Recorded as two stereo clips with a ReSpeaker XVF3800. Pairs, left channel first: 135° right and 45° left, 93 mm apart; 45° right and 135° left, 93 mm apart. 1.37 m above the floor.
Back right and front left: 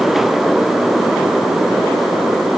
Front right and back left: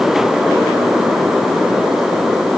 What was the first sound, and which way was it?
Only background noise.